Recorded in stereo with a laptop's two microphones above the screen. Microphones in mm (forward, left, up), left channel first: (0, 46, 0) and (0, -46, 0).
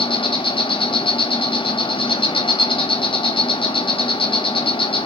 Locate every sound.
0.0 s an insect: 65° left (ahead or behind), 0.9 m